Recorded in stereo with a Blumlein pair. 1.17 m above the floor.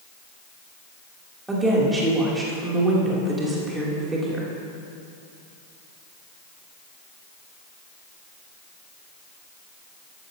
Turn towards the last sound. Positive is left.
turn(degrees=-10)